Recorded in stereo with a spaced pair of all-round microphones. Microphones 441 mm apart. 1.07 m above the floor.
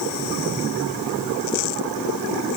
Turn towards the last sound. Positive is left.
No sound to turn to.